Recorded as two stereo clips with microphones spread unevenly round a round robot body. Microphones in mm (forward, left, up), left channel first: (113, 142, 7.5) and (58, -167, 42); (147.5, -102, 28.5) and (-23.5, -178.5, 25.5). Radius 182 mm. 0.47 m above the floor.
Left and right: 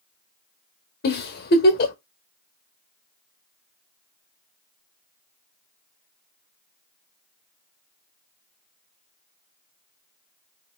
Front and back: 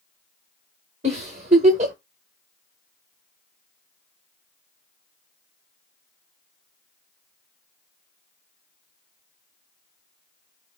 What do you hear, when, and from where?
1.0 s a giggle: 140° left, 0.8 m